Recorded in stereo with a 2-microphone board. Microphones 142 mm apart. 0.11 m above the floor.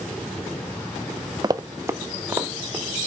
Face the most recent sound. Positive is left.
turn(degrees=-15)  # may be behind; listen again after turning